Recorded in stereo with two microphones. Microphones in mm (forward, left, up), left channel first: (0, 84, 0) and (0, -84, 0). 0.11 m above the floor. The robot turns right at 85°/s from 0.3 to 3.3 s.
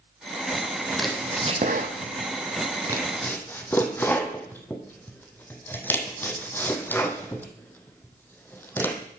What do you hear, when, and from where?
0.9 s chopping: 10° left (ahead or behind), 1.1 m